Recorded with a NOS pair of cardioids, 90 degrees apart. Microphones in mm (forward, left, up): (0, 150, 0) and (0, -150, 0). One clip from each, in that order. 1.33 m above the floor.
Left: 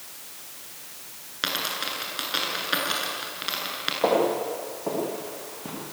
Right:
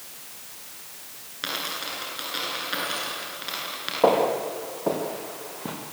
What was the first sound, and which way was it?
A dropped coin, 35° left.